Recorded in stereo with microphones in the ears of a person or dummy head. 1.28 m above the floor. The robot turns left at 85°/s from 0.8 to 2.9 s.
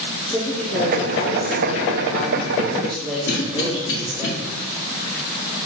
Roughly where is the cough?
Left.